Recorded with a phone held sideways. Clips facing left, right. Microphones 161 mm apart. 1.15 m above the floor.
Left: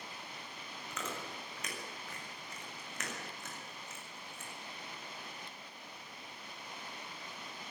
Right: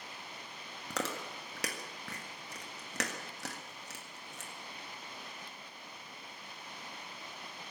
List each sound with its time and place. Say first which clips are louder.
0.9 s chewing: right 5 dB; 80° right, 1.7 m